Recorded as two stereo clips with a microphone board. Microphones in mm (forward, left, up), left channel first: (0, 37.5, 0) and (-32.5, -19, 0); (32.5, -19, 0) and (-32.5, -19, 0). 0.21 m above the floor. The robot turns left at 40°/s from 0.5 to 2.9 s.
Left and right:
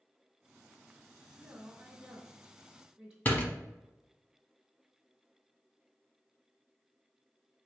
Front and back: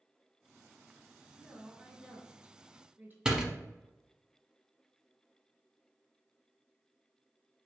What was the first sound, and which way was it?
A woman speaking, 125° right.